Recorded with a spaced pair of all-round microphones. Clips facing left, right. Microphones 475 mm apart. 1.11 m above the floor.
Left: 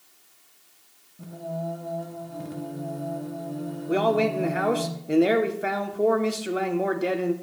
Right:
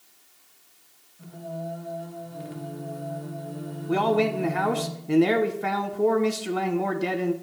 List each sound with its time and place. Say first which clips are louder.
1.2 s singing: left 3 dB; 60° left (ahead or behind), 1.1 m
3.9 s a man speaking: even; 15° right (ahead or behind), 0.7 m